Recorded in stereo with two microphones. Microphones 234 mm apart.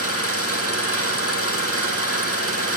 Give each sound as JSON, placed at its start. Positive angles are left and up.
{"t": 0.0, "sound": "an engine running", "side_deg": 75, "distance_m": 4.0}